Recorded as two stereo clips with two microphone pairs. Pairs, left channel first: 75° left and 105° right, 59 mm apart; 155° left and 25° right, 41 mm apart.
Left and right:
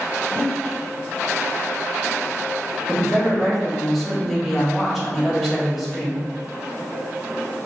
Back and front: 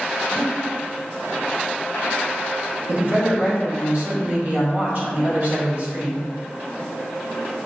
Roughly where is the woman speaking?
Ahead.